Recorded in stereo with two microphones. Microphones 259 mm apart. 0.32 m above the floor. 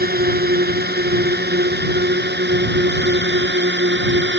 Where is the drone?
35° right (ahead or behind); by 4.4 s 40° right (ahead or behind).